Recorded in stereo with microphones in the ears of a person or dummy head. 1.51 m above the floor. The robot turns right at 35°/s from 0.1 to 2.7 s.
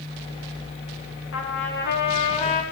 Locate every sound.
1.3 s a trumpet: 105° left, 2 m; by 2.6 s 150° left, 2 m